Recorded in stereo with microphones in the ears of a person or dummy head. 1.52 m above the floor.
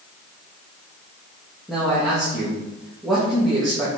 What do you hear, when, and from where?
1.7 s a man speaking: centre (ahead or behind), 2.0 m